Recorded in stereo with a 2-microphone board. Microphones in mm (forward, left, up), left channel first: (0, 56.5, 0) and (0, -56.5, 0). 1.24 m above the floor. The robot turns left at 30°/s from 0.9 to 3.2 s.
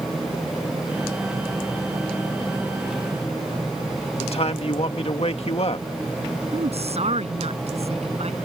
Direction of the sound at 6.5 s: 65° right (ahead or behind).